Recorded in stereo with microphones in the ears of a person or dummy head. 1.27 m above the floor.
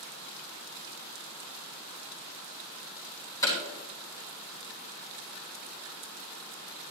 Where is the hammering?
25° left (ahead or behind), 3.5 m.